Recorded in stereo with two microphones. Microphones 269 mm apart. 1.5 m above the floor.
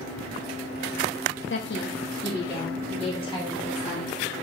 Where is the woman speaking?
50° left (ahead or behind), 0.6 m; by 4.1 s 5° right (ahead or behind), 2.5 m.